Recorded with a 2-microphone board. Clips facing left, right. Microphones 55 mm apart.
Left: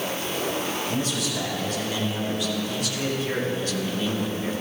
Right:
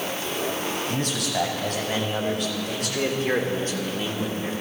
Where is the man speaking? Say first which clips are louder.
Even; 75° right (ahead or behind), 4 m; by 4.5 s centre (ahead or behind), 1.7 m.